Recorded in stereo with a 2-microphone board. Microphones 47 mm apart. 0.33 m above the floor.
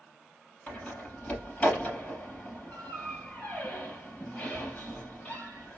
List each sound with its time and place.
0.7 s a door slam: 25° left (ahead or behind), 4 m